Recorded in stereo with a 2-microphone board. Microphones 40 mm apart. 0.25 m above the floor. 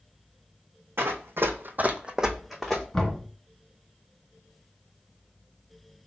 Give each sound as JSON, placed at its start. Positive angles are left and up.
{"t": 1.0, "sound": "running footsteps", "side_deg": -70, "distance_m": 0.8}
{"t": 2.9, "sound": "knocking", "side_deg": 20, "distance_m": 2.5}